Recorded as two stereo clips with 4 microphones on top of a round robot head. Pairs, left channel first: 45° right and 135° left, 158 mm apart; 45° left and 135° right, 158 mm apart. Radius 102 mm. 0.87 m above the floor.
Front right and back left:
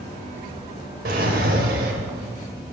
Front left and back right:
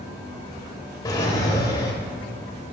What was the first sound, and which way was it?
A drawer, 110° left.